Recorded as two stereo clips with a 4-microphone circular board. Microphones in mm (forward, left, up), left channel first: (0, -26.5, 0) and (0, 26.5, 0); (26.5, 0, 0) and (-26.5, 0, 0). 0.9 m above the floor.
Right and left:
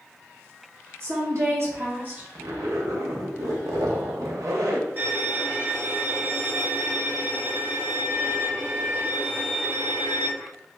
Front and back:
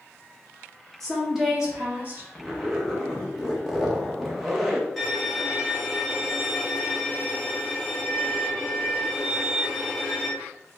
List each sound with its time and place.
1.0 s a woman speaking: 80° left, 1.4 m; by 2.2 s 140° left, 1.2 m
2.4 s a zipper: 95° left, 0.6 m
5.0 s a violin: 90° left, 1.1 m